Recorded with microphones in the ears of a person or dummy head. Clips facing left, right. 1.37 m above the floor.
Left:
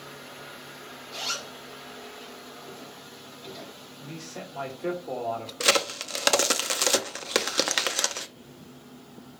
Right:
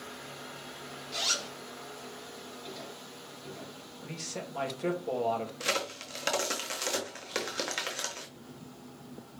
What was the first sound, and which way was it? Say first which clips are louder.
A zipper: even; 25° right (ahead or behind).